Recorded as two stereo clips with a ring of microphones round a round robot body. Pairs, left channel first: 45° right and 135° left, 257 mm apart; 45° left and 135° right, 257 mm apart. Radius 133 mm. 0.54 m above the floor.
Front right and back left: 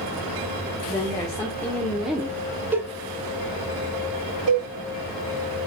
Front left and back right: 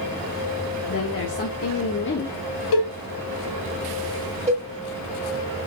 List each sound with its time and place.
0.9 s a woman speaking: 25° left, 2.5 m; by 2.4 s 65° left, 1.4 m
2.7 s a cowbell: 50° left, 1.4 m
4.5 s a cowbell: 160° left, 2.5 m